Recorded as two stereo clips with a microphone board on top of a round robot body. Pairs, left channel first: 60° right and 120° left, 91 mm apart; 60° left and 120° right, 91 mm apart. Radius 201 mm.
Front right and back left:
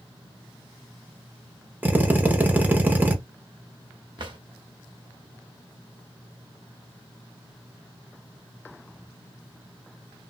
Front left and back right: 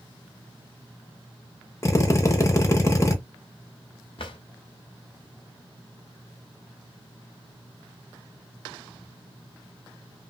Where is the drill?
70° left, 1.0 m.